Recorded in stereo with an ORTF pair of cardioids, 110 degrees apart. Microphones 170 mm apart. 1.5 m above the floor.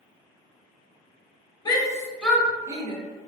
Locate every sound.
1.6 s a shout: 25° left, 0.8 m; by 3.0 s 35° right, 0.5 m